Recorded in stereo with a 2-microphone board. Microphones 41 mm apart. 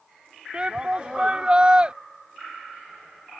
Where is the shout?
25° right (ahead or behind).